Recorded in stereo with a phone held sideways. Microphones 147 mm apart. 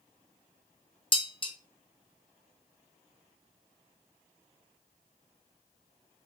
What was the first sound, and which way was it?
Dishes clattering, 35° left (ahead or behind).